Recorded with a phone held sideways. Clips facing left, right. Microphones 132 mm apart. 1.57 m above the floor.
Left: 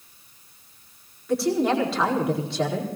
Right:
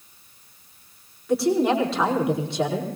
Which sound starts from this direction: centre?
A woman speaking, at 1.3 s.